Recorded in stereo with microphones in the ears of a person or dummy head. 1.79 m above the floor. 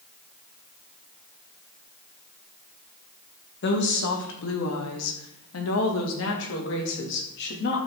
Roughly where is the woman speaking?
Left.